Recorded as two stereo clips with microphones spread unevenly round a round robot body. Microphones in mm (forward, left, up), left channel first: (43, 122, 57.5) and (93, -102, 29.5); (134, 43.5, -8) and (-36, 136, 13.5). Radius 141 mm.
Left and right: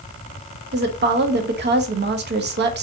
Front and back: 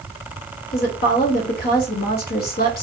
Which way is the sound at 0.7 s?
55° right.